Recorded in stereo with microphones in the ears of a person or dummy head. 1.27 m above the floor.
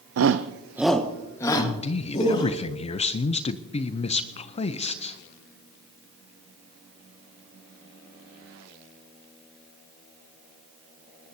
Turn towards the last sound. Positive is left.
turn(degrees=30)  # may be behind; listen again after turning